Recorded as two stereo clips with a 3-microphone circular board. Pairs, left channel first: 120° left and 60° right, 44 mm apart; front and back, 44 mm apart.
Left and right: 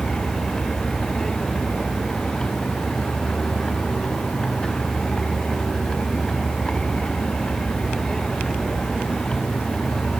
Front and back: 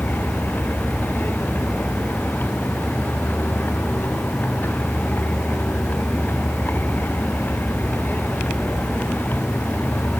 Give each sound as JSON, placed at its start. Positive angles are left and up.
{"t": 0.0, "sound": "a vehicle", "azimuth_deg": 45}